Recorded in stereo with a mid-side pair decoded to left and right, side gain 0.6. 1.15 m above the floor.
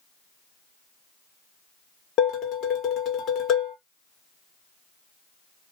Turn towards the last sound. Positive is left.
turn(degrees=60)